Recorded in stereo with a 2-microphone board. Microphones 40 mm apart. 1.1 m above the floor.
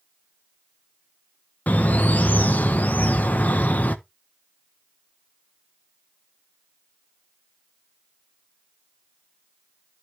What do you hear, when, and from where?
1.7 s a bird: 45° left (ahead or behind), 0.7 m